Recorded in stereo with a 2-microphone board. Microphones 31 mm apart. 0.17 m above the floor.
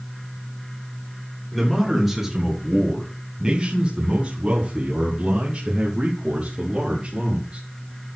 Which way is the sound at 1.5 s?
Centre (ahead or behind).